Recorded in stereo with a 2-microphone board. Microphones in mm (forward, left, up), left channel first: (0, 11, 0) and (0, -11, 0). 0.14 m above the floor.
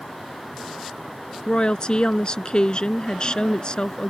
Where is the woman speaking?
40° left (ahead or behind).